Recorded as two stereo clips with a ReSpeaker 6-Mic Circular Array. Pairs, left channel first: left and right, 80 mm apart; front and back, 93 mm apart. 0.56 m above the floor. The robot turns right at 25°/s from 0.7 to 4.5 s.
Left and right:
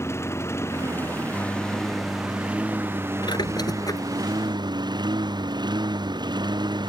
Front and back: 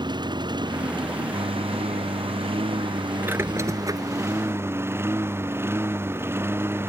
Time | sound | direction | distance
0.0 | a lawn mower | 145° left | ?
3.2 | a squeak | 115° left | ?